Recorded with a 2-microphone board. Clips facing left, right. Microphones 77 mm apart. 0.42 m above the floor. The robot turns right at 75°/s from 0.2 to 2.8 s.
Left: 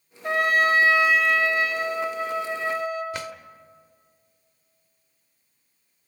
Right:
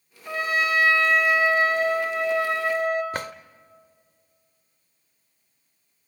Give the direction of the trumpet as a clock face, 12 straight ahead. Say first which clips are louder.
Left 4 dB; 8 o'clock.